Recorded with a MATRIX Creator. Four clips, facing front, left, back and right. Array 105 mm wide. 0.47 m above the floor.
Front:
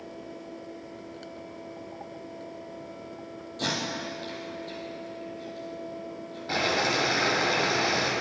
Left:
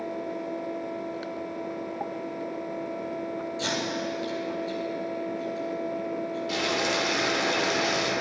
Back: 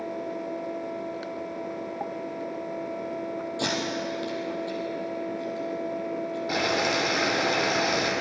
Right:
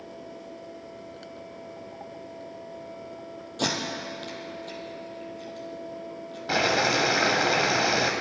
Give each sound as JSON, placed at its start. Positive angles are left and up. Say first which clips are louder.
{"t": 3.6, "sound": "tape being pulled", "louder": "right 3 dB, back 1 dB", "azimuth_deg": -110, "distance_m": 2.0}
{"t": 6.5, "sound": "boiling", "louder": "right 6 dB, even", "azimuth_deg": -90, "distance_m": 1.2}